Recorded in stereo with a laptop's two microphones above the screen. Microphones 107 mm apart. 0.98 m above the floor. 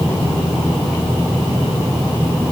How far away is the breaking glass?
No breaking glass in this recording.